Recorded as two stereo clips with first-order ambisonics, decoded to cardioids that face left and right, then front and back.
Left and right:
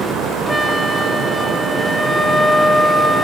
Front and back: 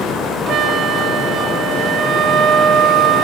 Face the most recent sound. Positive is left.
turn(degrees=180)